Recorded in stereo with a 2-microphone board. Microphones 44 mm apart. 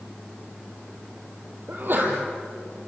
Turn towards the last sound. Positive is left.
turn(degrees=-50)  # may be behind; listen again after turning